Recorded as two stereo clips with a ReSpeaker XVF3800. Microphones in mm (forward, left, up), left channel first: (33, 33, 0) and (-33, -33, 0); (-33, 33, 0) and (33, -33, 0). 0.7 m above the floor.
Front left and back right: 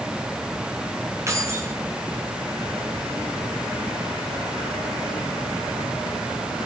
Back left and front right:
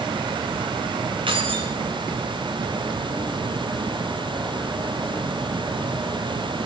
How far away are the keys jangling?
About 5 m.